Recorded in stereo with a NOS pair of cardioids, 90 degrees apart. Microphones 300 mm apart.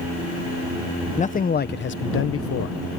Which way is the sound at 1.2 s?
25° left.